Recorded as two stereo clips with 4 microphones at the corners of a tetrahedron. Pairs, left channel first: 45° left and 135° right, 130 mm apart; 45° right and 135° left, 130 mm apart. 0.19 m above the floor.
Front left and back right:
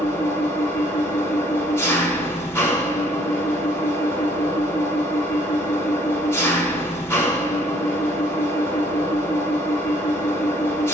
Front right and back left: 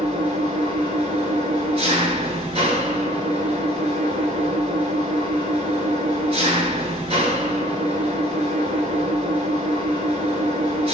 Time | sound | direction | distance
0.0 | an engine running | 110° left | 0.8 m